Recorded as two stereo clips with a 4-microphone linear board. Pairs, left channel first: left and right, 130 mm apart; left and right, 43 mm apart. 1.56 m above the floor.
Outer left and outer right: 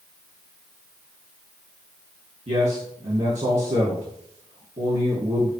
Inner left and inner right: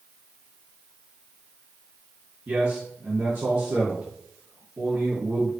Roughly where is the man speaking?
Right.